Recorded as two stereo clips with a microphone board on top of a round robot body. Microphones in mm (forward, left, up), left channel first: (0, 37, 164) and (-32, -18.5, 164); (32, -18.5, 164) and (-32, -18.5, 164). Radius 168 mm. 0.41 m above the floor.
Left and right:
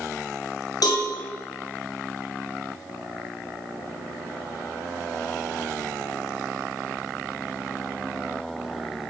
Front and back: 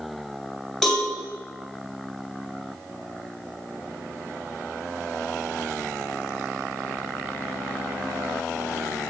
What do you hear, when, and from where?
0.8 s a cowbell: 90° left, 3.5 m